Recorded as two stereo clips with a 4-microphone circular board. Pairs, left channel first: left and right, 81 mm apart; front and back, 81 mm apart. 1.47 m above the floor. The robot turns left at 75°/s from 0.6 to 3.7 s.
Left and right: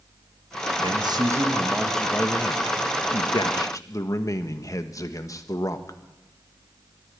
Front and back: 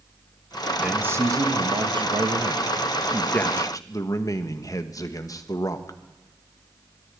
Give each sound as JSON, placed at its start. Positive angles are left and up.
{"t": 0.8, "sound": "a man speaking", "azimuth_deg": -100, "distance_m": 1.3}